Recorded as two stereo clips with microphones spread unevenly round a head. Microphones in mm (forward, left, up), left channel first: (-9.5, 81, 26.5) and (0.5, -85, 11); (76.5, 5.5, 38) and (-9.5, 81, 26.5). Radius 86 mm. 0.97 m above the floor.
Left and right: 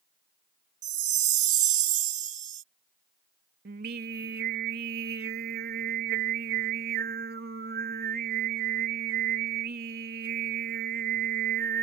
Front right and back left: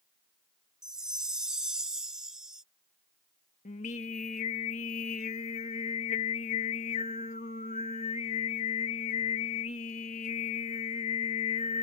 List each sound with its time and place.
0.8 s a chime: 130° right
3.6 s singing: 65° right